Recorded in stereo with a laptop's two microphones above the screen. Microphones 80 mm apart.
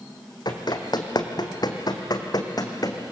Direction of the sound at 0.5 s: 60° left (ahead or behind).